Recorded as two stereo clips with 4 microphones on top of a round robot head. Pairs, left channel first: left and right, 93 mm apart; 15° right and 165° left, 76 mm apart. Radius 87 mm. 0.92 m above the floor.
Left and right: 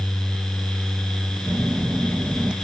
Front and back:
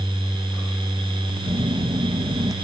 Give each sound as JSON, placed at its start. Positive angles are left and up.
{"t": 1.5, "sound": "a phone buzzing", "azimuth_deg": -170}